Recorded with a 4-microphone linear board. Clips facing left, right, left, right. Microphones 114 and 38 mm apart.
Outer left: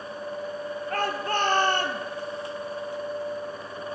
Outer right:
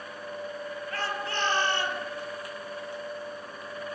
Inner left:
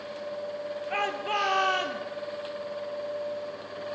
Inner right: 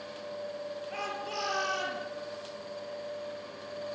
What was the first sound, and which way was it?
A shout, 45° left (ahead or behind).